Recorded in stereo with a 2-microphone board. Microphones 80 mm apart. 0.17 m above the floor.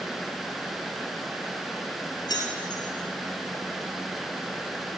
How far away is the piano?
No piano in this recording.